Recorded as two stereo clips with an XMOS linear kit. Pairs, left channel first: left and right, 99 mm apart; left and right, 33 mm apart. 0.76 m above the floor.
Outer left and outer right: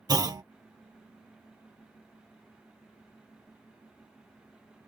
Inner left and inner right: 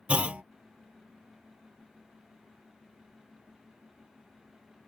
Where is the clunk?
40° right (ahead or behind).